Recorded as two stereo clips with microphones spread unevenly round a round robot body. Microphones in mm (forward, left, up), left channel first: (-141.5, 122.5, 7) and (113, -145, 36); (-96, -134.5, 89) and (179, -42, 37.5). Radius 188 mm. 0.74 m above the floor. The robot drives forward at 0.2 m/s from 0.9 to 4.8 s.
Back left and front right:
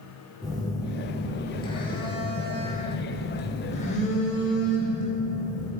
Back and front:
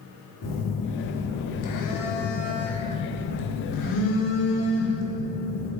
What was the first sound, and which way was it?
A phone buzzing, 150° right.